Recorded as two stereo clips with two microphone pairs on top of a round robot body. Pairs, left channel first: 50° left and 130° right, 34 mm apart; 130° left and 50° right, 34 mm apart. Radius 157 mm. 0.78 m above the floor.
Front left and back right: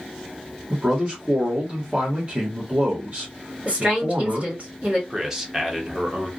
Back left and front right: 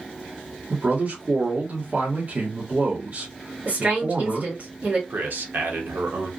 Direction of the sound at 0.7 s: 80° right.